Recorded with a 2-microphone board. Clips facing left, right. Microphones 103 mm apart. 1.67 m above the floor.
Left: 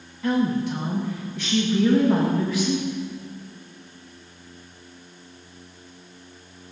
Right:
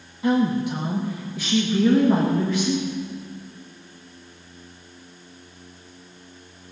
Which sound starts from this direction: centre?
A woman speaking, at 0.2 s.